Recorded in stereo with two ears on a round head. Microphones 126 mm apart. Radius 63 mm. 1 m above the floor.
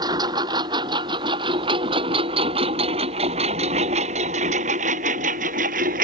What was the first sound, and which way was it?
A lawn mower, 30° right (ahead or behind).